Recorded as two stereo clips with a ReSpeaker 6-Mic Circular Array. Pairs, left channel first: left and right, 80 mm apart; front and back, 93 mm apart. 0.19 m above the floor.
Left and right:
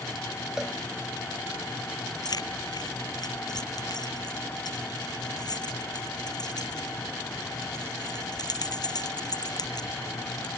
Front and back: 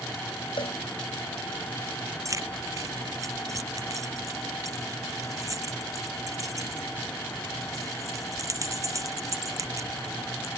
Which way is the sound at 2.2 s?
125° left.